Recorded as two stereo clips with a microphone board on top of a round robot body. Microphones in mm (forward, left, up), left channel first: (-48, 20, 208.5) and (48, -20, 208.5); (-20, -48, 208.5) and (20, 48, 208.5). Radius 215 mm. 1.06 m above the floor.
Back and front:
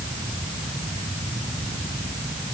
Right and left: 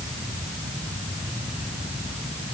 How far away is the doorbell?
I don't hear a doorbell.